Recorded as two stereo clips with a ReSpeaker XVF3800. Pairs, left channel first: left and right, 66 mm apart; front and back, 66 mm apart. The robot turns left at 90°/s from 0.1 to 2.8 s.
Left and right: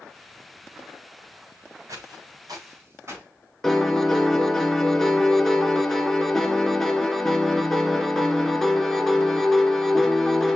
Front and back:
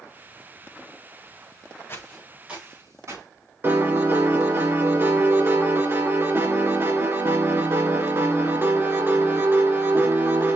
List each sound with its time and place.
1.9 s footsteps: 50° right, 3.5 m; by 3.2 s 135° right, 4.5 m
3.6 s a piano: 170° left, 1.7 m